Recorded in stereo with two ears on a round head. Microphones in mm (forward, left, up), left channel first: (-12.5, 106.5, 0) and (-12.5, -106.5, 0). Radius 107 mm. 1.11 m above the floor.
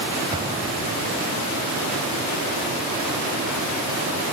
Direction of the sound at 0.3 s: 20° right (ahead or behind).